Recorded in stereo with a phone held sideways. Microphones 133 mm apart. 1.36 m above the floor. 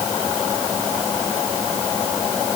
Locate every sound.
Only background noise.